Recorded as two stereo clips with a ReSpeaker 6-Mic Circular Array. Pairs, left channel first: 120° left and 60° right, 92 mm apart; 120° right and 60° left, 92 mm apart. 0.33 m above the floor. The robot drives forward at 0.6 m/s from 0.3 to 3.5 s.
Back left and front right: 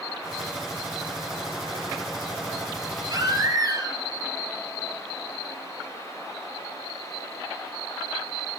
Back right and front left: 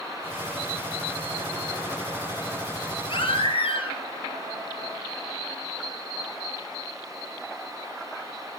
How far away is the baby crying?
About 3.5 m.